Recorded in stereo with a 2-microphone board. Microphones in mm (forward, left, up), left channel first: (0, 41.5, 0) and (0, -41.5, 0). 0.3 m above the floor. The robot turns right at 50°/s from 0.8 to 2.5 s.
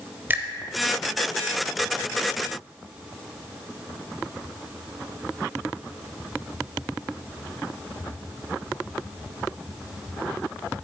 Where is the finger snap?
20° right (ahead or behind), 0.7 m.